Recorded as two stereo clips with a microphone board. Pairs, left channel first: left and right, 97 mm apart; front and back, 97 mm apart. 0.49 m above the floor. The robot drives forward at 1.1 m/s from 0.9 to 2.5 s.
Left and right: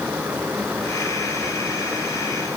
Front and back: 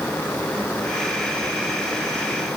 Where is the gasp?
No gasp in this recording.